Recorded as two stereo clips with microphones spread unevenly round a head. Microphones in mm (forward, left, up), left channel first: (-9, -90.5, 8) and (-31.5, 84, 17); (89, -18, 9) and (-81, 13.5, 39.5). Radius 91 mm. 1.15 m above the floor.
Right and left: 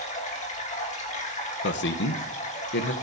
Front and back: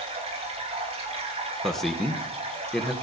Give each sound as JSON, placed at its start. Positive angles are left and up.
{"t": 0.0, "sound": "running water", "azimuth_deg": -135, "distance_m": 2.5}
{"t": 1.6, "sound": "a man speaking", "azimuth_deg": -95, "distance_m": 0.8}